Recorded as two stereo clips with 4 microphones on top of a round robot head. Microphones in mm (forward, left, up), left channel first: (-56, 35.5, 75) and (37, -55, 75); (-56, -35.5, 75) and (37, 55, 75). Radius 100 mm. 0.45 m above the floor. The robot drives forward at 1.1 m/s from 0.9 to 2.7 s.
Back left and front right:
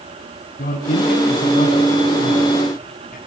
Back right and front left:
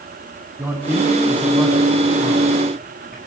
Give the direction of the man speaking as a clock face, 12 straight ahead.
8 o'clock.